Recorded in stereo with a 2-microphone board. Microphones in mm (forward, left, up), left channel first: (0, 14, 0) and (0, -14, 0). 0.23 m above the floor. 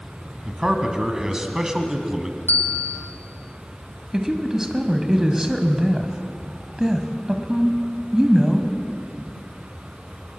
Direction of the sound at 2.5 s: 65° left (ahead or behind).